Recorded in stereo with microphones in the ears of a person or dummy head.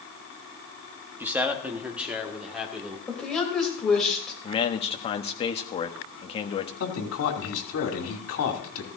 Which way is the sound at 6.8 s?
80° left.